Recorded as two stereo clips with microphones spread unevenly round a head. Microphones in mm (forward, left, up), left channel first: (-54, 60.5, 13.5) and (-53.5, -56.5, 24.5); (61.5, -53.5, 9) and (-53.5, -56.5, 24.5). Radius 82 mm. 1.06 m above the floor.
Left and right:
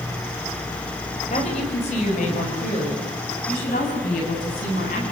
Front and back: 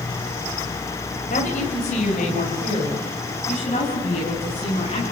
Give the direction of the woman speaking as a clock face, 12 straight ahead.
11 o'clock.